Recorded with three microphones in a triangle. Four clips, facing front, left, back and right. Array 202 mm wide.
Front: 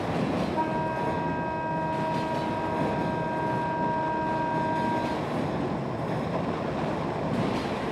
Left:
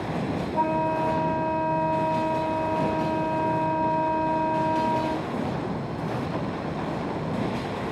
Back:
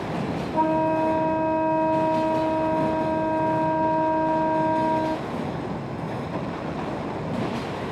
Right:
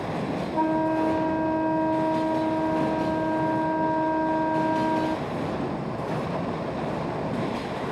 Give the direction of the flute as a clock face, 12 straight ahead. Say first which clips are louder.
Right 1 dB, back 6 dB; 5 o'clock.